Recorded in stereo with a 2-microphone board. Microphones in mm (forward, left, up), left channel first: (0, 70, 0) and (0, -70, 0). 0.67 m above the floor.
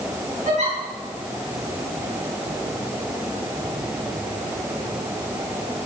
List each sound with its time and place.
0.5 s a giggle: 80° right, 6 m